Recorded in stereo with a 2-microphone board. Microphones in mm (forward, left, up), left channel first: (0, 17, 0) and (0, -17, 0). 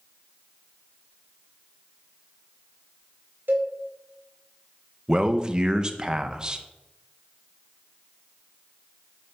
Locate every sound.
3.5 s a cowbell: 75° right (ahead or behind), 1.3 m
5.1 s a man speaking: 25° right (ahead or behind), 0.5 m